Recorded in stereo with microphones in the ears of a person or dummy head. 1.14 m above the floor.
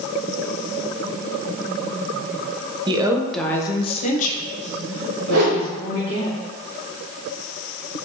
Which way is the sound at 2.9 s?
20° right (ahead or behind).